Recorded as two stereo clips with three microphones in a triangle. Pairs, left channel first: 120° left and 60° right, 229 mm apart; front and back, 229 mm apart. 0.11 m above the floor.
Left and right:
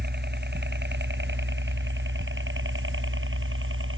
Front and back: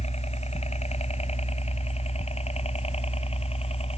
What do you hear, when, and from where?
0.0 s a helicopter: 50° right; by 4.0 s 60° right